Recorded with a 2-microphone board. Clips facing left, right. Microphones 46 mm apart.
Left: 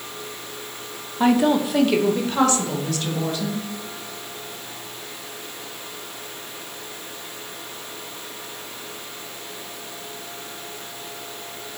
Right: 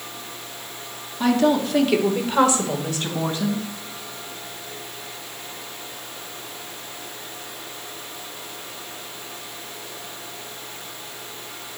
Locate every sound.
1.2 s a woman speaking: 20° left (ahead or behind), 1.0 m; by 3.7 s 35° right (ahead or behind), 2.0 m